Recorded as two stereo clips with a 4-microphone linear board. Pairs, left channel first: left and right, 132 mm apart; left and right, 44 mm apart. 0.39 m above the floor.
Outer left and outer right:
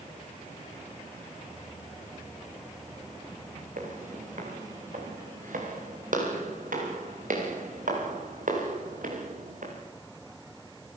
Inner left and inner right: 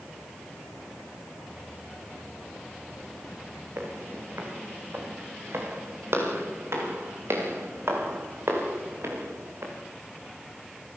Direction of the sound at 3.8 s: 75° right (ahead or behind).